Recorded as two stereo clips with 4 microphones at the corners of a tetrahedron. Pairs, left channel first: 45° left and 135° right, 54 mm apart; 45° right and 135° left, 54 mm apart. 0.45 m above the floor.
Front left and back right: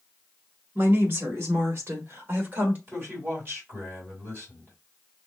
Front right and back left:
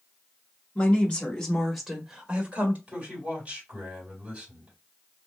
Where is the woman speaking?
105° right, 1.8 m; by 2.8 s straight behind, 1.3 m.